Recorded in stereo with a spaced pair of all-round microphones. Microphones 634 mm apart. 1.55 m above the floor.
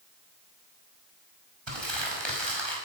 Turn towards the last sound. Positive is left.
turn(degrees=-45)  # may be behind; listen again after turning